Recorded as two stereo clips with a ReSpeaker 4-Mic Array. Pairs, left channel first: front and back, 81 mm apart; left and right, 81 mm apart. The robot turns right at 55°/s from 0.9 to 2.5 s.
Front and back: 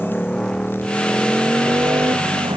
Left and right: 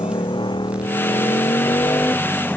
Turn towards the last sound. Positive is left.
turn(degrees=165)